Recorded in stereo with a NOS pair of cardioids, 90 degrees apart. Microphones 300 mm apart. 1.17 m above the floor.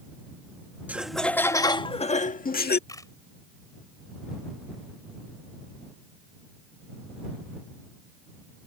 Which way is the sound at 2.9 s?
10° left.